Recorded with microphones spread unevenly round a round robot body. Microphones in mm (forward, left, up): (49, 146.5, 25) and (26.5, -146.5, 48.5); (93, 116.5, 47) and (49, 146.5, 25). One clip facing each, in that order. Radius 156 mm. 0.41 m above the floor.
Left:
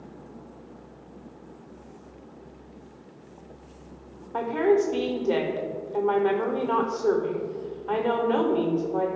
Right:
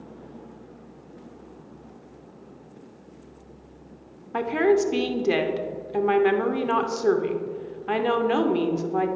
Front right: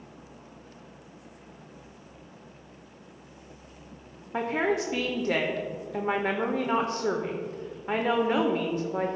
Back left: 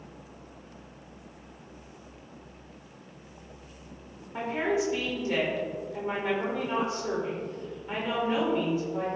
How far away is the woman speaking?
About 1.0 m.